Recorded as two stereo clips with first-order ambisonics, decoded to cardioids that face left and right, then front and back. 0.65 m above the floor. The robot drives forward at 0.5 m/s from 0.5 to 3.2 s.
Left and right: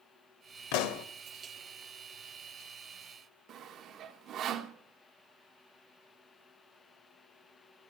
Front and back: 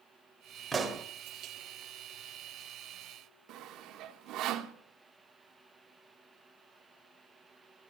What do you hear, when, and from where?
0.7 s a pop: 100° left, 1.1 m; by 1.1 s 110° left, 1.1 m
3.5 s sawing: 140° right, 1.0 m